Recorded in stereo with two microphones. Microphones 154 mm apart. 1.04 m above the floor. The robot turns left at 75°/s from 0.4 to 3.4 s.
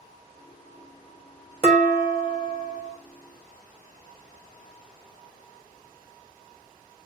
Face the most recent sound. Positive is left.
turn(degrees=-175)